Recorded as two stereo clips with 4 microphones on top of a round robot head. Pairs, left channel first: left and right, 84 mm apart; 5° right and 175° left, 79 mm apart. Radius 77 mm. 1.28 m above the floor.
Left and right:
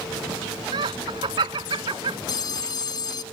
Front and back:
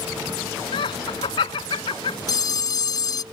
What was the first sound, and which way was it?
Laughter, 45° right.